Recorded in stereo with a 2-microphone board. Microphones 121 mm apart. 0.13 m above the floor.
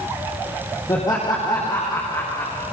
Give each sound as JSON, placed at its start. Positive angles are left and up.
{"t": 0.9, "sound": "laughter", "side_deg": 30, "distance_m": 5.5}